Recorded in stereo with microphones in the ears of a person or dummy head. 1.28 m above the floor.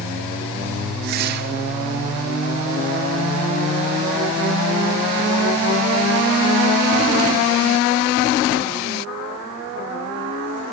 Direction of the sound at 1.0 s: 60° right (ahead or behind).